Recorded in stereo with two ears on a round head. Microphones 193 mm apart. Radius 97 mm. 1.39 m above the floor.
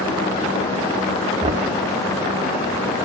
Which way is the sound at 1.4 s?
30° right (ahead or behind).